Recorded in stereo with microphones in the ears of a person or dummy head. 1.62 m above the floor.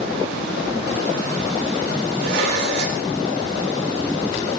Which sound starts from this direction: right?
Dishes clattering, at 2.2 s.